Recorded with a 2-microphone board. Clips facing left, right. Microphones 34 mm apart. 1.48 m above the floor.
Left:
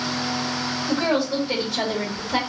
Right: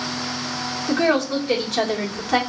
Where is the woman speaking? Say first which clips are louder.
Right 3 dB; 65° right (ahead or behind), 2.0 m.